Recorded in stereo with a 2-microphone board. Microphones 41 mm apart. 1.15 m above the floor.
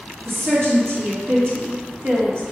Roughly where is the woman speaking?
Right.